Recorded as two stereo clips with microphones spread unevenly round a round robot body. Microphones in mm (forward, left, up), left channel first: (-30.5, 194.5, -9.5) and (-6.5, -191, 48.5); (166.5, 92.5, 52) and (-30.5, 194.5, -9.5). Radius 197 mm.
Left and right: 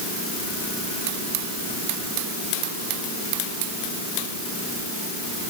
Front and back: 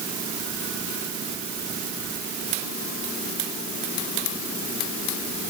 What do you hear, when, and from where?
Only background noise.